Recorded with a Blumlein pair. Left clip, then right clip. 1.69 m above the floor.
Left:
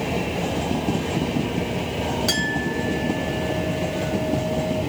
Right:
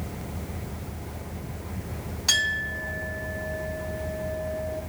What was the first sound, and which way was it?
A clink, 15° left.